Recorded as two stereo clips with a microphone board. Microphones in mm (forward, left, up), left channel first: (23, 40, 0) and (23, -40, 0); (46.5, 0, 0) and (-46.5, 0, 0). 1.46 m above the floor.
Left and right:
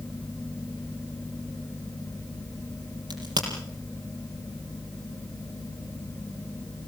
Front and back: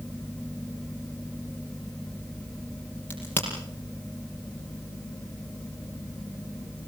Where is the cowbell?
No cowbell in this recording.